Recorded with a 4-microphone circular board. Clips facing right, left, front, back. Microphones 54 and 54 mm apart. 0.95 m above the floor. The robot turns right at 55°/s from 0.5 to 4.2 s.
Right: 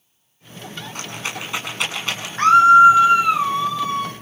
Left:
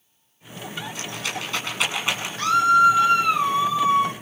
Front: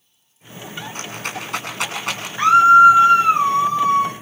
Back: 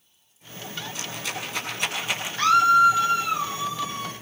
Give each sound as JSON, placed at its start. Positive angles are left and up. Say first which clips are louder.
{"t": 0.9, "sound": "a rattle", "louder": "right 3 dB, front 4 dB", "azimuth_deg": -50, "distance_m": 8.5}
{"t": 2.4, "sound": "a scream", "louder": "right 7 dB, front 7 dB", "azimuth_deg": -65, "distance_m": 0.8}